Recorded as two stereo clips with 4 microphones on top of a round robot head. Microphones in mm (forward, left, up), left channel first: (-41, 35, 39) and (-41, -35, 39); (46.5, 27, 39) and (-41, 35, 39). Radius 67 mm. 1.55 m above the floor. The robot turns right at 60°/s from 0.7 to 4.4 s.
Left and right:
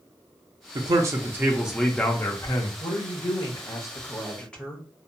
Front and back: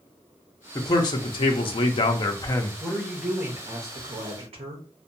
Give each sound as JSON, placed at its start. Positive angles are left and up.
{"t": 0.8, "sound": "a man speaking", "azimuth_deg": -60, "distance_m": 0.6}
{"t": 2.8, "sound": "a woman speaking", "azimuth_deg": 70, "distance_m": 0.7}